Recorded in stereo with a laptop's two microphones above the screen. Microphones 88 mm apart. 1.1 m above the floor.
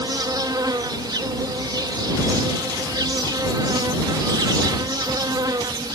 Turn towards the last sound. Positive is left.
turn(degrees=-50)  # may be behind; listen again after turning